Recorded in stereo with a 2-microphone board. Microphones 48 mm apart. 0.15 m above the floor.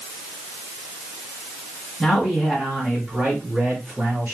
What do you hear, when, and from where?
2.0 s a man speaking: 10° right (ahead or behind), 1.5 m; by 4.3 s 50° right (ahead or behind), 3 m